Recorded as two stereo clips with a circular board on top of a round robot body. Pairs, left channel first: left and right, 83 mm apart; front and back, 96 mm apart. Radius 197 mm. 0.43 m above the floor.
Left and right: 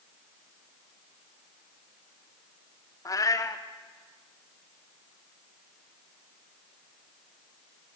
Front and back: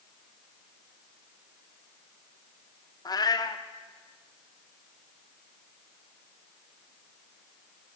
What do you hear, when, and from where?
3.0 s a cat meowing: 45° left, 0.7 m